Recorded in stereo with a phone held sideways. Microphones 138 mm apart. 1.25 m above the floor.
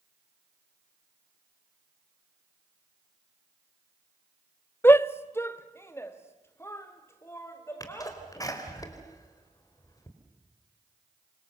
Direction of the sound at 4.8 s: 15° left (ahead or behind).